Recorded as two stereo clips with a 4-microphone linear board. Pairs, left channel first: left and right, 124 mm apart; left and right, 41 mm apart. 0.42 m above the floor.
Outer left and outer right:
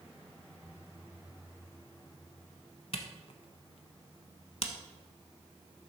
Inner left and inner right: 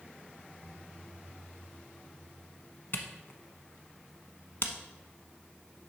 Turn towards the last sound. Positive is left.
turn(degrees=55)  # may be behind; listen again after turning